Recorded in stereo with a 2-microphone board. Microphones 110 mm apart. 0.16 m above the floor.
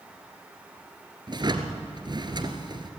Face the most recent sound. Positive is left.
turn(degrees=-45)  # may be behind; listen again after turning